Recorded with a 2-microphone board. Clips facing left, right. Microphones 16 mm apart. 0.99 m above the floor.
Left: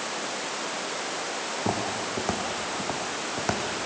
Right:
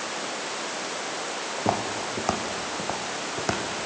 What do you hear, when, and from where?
1.6 s footsteps: 30° right (ahead or behind), 3 m; by 3.9 s centre (ahead or behind), 3.5 m